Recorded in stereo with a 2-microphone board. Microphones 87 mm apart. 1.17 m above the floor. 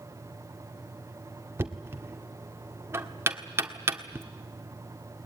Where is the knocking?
30° right (ahead or behind), 1.7 m.